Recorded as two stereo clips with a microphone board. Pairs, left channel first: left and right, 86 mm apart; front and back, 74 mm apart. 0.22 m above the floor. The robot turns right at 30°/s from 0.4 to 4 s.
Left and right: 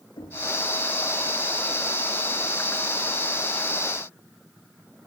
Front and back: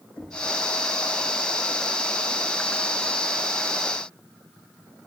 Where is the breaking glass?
No breaking glass in this recording.